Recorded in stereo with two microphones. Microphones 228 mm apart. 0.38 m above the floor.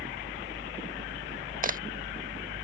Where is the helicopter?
55° right (ahead or behind).